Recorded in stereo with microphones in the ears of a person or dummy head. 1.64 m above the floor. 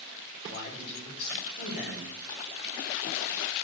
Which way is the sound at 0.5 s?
40° left (ahead or behind).